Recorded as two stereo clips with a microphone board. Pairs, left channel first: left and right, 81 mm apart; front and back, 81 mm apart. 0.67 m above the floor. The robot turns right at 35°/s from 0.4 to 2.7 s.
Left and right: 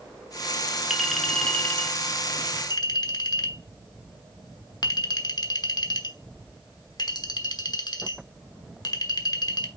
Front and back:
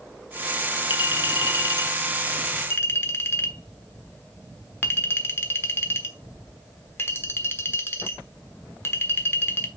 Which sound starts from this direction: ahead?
A clink, at 0.9 s.